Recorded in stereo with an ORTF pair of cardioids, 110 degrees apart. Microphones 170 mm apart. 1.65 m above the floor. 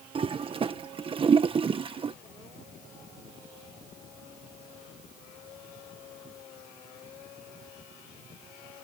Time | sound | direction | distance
0.1 | a toilet flushing | 35° right | ?